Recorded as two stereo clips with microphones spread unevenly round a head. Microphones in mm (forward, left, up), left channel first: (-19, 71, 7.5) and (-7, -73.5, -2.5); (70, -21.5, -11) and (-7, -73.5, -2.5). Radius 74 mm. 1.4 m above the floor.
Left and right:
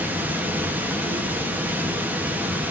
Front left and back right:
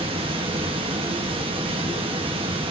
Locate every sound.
0.0 s running water: 165° right, 1.1 m